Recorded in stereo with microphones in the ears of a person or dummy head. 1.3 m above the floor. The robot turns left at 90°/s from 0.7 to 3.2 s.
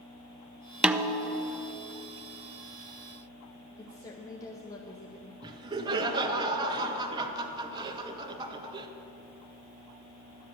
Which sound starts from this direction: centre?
Laughter, at 5.4 s.